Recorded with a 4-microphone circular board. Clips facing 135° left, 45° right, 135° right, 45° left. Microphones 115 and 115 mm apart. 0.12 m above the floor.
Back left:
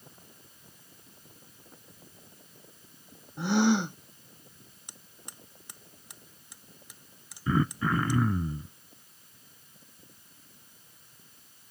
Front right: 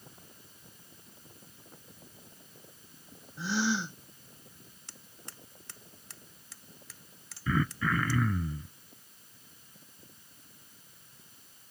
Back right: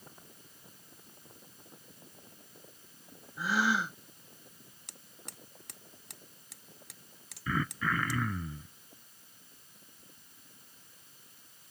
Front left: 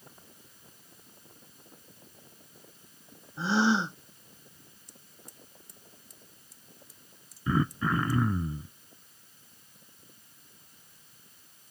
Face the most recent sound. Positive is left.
turn(degrees=90)